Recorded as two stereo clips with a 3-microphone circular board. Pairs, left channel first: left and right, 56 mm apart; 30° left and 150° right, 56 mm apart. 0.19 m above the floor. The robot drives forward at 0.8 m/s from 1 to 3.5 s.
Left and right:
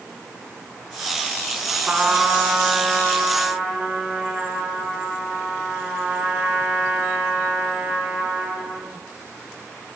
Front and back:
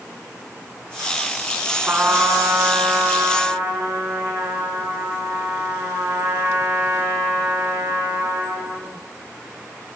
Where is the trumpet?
140° right, 1.6 m; by 8.9 s 160° right, 2.5 m.